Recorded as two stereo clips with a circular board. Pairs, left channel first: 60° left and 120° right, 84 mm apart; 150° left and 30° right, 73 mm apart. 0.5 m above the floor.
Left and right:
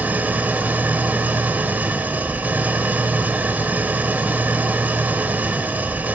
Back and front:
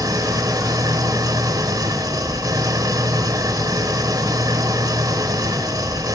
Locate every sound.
0.0 s an engine running: 50° right, 2 m